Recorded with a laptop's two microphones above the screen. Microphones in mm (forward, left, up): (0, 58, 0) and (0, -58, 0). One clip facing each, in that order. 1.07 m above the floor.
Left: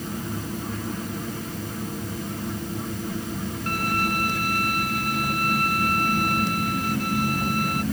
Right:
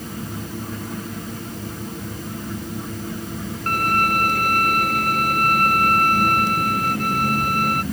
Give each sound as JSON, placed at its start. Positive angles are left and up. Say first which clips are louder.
{"t": 3.7, "sound": "a violin", "louder": "right 6 dB", "side_deg": -50}